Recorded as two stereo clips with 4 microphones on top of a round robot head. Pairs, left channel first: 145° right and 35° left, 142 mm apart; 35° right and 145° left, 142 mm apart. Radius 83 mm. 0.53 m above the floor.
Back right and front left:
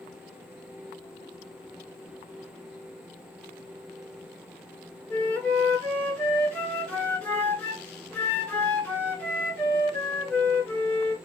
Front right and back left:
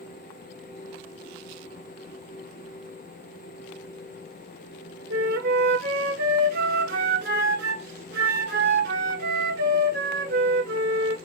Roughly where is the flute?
Behind left.